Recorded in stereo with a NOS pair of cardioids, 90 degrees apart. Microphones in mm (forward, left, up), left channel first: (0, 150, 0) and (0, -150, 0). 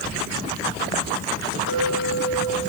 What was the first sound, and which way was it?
A clink, 60° right.